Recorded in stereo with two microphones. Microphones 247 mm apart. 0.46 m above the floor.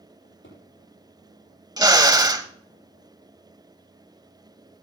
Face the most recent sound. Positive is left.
turn(degrees=-15)  # may be behind; listen again after turning